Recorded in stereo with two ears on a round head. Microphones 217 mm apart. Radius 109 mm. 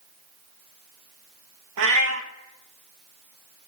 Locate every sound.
1.8 s a cat meowing: 65° right (ahead or behind), 0.8 m